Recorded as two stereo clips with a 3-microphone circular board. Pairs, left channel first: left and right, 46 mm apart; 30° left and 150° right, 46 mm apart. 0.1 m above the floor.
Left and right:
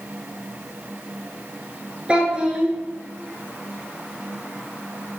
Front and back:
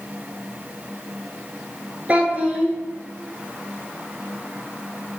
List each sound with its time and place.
2.1 s a child speaking: 135° right, 0.8 m